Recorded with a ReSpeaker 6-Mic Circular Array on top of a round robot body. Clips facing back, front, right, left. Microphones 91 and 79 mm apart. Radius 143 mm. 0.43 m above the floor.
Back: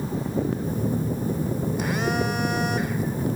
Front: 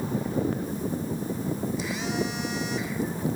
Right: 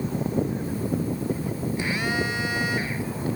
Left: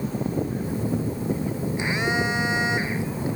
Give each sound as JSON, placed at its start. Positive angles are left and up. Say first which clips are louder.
{"t": 0.6, "sound": "a phone buzzing", "louder": "back 4 dB, left 1 dB", "azimuth_deg": 155, "distance_m": 1.2}